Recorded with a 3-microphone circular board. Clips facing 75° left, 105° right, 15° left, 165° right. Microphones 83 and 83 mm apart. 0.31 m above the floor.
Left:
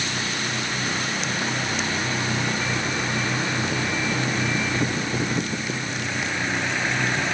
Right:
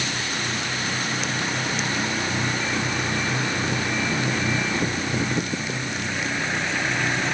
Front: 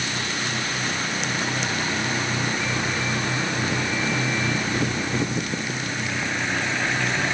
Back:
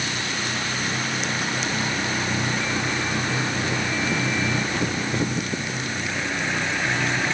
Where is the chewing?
I don't hear chewing.